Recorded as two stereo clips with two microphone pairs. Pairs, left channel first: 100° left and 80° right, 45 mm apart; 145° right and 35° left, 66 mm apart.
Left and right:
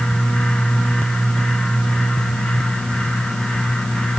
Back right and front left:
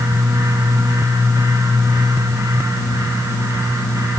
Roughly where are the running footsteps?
No running footsteps in this recording.